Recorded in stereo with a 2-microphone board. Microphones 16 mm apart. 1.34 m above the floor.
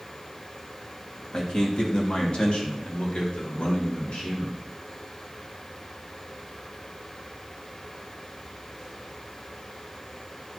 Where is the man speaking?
50° left (ahead or behind), 2.5 m; by 4.6 s 75° left (ahead or behind), 5 m.